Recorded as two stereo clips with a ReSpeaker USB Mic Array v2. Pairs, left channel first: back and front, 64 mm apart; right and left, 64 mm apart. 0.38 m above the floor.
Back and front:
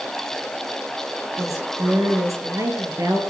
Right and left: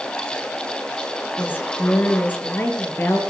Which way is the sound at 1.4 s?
30° right.